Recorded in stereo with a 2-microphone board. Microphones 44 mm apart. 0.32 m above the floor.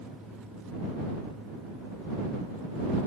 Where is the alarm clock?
I don't hear an alarm clock.